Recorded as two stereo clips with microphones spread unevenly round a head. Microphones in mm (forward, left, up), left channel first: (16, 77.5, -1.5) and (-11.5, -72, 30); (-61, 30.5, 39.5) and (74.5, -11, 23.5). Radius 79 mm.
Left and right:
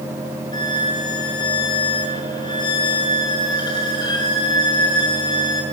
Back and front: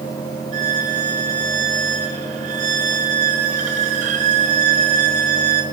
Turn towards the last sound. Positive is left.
turn(degrees=15)